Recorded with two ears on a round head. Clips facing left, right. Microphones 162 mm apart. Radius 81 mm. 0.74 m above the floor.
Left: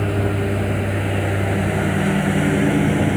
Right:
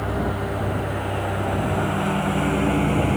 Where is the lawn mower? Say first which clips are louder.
Left 4 dB; 30° left (ahead or behind); by 3.2 s 15° left (ahead or behind).